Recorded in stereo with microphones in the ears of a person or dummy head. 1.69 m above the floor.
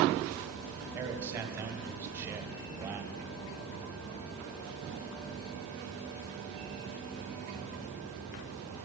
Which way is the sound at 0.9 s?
20° right (ahead or behind).